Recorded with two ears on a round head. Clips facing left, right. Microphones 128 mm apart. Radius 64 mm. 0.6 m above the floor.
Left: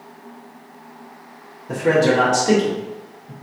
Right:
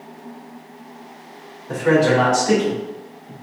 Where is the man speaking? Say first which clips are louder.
Even; 20° left (ahead or behind), 1.2 m; by 3.3 s 45° left (ahead or behind), 2 m.